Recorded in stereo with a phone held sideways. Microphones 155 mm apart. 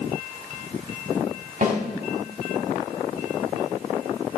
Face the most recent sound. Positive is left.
turn(degrees=-70)  # may be behind; listen again after turning